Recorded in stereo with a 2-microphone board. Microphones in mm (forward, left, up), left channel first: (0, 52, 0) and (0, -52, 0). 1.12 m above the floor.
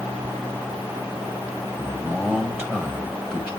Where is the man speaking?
25° right (ahead or behind), 2 m.